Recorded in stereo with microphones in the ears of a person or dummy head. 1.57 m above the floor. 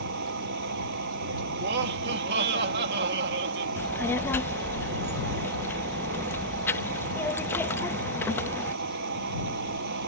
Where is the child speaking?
5° left (ahead or behind).